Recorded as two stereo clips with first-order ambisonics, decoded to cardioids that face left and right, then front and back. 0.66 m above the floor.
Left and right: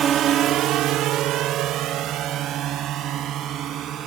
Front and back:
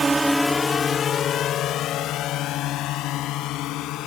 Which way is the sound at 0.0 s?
120° right.